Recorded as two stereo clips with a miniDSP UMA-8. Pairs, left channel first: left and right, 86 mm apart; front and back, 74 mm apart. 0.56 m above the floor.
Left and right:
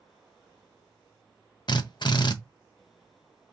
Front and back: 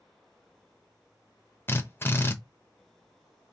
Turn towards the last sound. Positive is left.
turn(degrees=55)